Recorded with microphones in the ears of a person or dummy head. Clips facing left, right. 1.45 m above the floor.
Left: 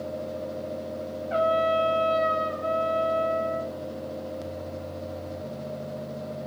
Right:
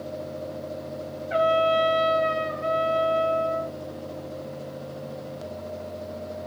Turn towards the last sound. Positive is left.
turn(degrees=-20)  # may be behind; listen again after turning